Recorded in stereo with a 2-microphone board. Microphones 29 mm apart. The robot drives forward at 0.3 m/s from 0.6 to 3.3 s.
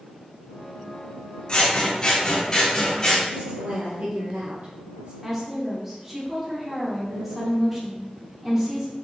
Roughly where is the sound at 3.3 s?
Right.